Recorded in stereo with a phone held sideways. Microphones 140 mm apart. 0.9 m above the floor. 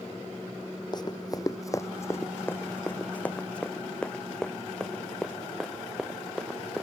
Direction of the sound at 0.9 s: 35° left (ahead or behind).